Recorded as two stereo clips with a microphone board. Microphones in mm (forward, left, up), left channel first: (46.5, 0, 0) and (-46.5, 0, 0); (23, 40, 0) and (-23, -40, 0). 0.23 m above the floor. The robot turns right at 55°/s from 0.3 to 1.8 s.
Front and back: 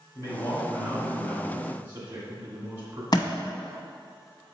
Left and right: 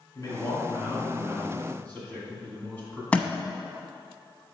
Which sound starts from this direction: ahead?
A thud, at 3.1 s.